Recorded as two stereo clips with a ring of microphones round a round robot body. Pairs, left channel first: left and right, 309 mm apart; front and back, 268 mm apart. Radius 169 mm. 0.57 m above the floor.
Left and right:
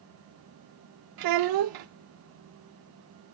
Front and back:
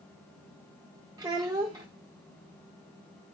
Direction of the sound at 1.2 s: 105° right.